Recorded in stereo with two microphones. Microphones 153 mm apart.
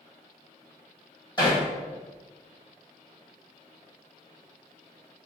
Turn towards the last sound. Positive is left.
turn(degrees=25)  # may be behind; listen again after turning